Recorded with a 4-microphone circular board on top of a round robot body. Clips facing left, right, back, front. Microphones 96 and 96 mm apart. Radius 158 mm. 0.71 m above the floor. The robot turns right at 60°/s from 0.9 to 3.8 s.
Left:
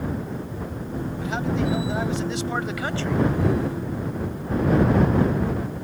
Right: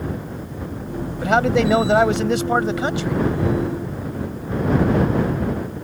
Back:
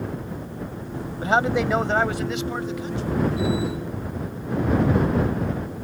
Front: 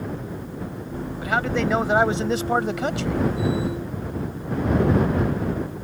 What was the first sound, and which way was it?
A man speaking, 120° right.